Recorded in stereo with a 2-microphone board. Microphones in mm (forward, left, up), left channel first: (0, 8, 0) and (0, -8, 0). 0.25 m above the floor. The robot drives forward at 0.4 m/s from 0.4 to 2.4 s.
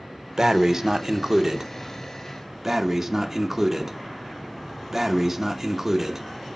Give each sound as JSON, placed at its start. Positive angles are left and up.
{"t": 0.4, "sound": "breathing", "side_deg": -45, "distance_m": 0.6}